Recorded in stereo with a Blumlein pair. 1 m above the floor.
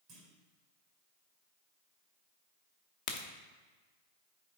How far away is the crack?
About 0.9 m.